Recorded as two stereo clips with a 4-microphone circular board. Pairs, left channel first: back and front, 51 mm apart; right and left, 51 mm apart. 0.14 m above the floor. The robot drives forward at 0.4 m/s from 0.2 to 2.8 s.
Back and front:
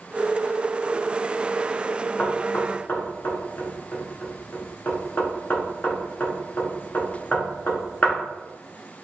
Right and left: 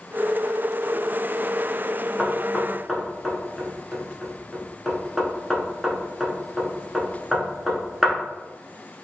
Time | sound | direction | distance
2.2 | knocking | 175° right | 0.9 m